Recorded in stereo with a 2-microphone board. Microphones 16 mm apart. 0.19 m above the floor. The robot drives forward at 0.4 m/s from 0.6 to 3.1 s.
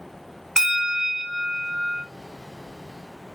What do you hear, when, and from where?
0.6 s a bell: 35° right (ahead or behind), 0.6 m; by 2.0 s 20° right (ahead or behind), 1.0 m